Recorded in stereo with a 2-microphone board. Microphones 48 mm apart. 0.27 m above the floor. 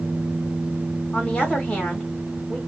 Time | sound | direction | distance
1.1 | a woman speaking | 25° left (ahead or behind) | 1.6 m